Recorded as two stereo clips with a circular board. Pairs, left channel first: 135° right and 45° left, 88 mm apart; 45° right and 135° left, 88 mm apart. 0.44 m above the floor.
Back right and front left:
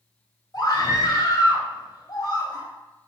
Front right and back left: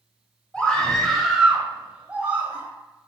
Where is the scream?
120° right, 2.5 m; by 2.7 s 165° right, 3 m.